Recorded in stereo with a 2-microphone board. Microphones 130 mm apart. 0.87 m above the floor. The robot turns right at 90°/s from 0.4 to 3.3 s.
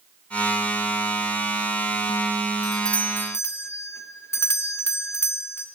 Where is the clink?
I don't hear a clink.